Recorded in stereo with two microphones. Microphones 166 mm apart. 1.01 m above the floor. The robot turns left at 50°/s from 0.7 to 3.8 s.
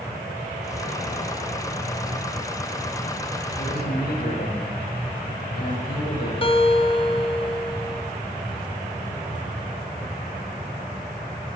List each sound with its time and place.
3.6 s a man speaking: 60° left (ahead or behind), 6.5 m; by 6.3 s 70° left (ahead or behind), 6.5 m
6.4 s a guitar: 35° left (ahead or behind), 2 m